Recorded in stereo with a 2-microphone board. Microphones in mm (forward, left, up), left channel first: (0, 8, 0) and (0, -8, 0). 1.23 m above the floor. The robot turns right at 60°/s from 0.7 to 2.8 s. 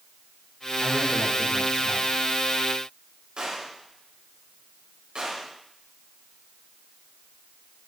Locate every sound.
0.8 s a man speaking: 170° left, 4 m; by 2.1 s 115° right, 4 m
3.4 s a gunshot: 70° right (ahead or behind), 4 m